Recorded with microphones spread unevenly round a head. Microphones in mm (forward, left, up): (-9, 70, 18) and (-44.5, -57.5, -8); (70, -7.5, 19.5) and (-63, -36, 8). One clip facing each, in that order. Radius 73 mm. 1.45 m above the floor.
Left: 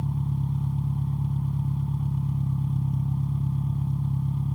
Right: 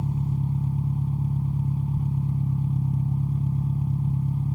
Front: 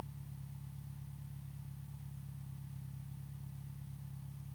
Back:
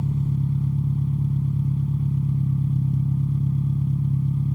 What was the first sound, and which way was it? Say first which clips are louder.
An engine running: right 2 dB, back 24 dB; 170° left.